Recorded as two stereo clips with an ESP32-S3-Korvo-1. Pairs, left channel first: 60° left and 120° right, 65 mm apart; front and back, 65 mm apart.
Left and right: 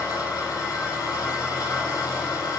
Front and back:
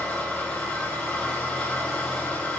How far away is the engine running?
About 8.5 m.